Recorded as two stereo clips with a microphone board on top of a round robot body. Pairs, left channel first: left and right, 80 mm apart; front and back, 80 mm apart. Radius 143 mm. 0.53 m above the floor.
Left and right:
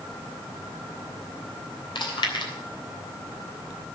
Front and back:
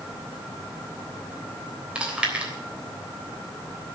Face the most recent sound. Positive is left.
turn(degrees=105)